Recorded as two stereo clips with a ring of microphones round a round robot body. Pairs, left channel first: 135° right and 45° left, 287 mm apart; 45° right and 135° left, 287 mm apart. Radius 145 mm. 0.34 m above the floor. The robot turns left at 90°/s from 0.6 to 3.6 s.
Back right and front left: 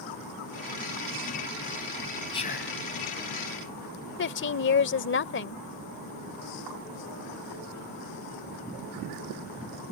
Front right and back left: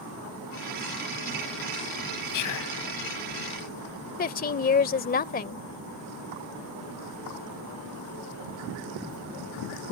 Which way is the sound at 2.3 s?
60° right.